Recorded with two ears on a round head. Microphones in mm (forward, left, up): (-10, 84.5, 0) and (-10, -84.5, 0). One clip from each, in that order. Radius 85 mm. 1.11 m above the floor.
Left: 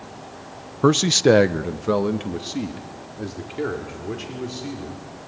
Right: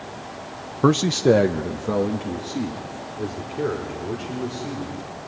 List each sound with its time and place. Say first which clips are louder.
0.8 s a man speaking: left 2 dB; 5° left (ahead or behind), 0.5 m; by 5.0 s 85° left, 5 m